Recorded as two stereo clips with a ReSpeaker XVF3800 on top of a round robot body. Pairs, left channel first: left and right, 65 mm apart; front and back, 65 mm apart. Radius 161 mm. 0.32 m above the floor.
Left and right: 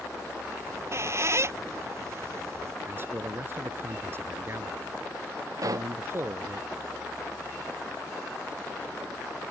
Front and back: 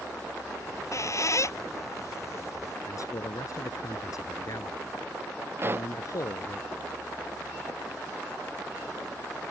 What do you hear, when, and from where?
0.6 s a squeak: 40° right
2.9 s a man speaking: 35° right
5.6 s a pop: 125° right